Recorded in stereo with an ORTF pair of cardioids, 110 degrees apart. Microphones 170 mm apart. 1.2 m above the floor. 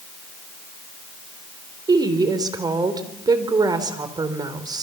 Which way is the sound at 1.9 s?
25° right.